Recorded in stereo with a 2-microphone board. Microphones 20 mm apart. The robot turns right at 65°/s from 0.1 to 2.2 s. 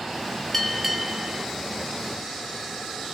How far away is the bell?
About 0.9 m.